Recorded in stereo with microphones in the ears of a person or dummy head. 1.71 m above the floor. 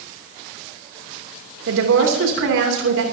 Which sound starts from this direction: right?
A woman speaking, at 1.7 s.